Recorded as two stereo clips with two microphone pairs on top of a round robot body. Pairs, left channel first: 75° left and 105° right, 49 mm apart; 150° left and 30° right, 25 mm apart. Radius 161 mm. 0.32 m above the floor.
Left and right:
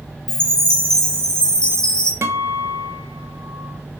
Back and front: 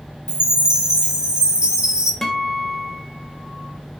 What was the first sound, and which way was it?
A chime, 5° left.